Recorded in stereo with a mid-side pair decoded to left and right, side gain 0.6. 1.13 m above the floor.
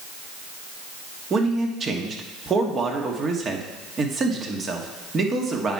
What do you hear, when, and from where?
1.3 s a man speaking: 35° right, 1.6 m